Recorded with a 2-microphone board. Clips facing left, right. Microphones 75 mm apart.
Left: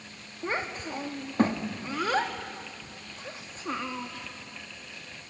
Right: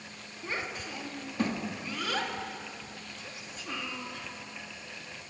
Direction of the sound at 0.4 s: 40° left (ahead or behind).